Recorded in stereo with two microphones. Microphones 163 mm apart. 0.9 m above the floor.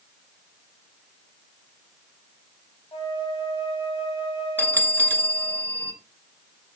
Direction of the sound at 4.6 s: 10° left (ahead or behind).